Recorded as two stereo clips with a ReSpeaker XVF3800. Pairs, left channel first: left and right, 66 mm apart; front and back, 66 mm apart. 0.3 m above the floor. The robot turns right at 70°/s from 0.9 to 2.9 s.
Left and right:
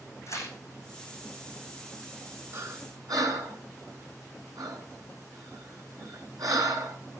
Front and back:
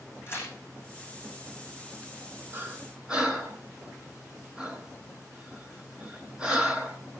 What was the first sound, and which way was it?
Tearing paper, 55° left.